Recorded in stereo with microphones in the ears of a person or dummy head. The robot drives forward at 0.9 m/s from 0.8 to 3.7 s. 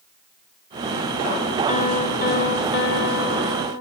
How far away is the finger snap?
No finger snap in this recording.